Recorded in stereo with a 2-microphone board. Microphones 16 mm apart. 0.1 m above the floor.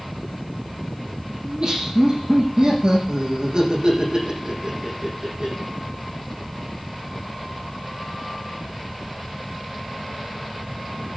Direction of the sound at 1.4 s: 70° right (ahead or behind).